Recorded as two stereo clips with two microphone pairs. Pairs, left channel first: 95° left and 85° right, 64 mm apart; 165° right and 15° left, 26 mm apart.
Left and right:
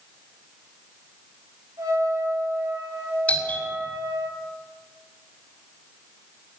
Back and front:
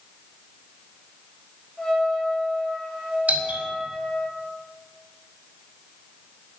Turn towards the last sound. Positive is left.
turn(degrees=20)